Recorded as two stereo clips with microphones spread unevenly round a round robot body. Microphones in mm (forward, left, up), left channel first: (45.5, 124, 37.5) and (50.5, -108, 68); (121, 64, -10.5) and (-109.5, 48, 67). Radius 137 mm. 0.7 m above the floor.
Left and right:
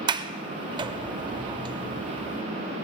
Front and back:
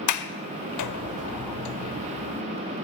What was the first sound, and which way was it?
A sliding door, 25° right.